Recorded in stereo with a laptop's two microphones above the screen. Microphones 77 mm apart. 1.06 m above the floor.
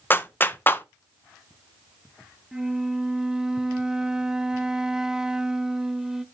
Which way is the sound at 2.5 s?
10° right (ahead or behind).